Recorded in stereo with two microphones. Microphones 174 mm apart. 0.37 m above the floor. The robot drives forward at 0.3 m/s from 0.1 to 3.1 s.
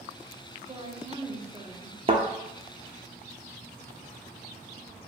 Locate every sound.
0.7 s a woman speaking: 30° right (ahead or behind), 1.1 m; by 2.0 s 35° right (ahead or behind), 1.0 m
2.1 s a thud: 35° right (ahead or behind), 0.8 m